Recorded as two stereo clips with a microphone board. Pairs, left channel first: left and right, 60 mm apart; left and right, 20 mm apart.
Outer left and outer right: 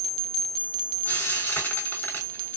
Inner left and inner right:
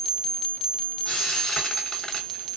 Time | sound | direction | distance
1.1 | frying | 35° left (ahead or behind) | 3 m